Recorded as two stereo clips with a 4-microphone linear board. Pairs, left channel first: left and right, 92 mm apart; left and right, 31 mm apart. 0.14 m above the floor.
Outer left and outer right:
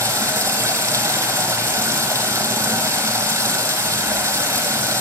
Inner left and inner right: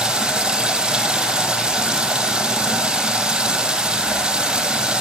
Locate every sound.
0.0 s running water: 35° right (ahead or behind), 0.7 m